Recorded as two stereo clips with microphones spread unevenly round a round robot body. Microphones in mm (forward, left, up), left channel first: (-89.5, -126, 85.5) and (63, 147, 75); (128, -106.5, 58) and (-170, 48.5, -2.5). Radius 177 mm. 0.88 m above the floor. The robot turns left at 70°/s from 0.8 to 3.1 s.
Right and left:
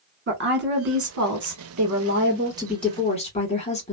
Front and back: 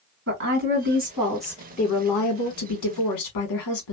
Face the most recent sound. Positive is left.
turn(degrees=-50)